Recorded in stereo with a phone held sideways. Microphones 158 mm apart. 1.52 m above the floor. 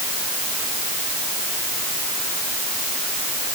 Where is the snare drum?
No snare drum in this recording.